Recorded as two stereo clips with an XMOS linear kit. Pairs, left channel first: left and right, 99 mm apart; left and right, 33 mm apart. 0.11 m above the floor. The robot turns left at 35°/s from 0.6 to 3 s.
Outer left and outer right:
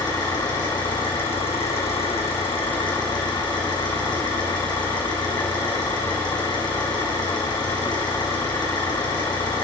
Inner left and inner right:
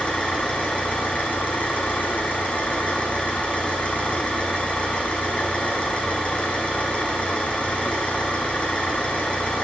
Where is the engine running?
135° left, 1.9 m; by 9.6 s 50° left, 1.9 m.